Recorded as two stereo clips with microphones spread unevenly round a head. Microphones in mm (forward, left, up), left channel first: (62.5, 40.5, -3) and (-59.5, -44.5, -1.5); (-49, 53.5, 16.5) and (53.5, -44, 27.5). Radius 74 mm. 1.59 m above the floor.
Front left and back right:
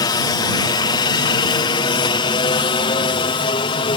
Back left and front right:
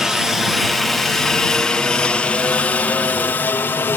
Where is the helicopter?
45° left; by 4.0 s 70° left.